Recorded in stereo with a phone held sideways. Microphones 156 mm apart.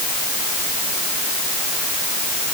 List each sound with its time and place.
Only background noise.